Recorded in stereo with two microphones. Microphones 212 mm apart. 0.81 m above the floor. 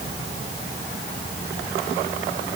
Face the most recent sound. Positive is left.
No sound to turn to.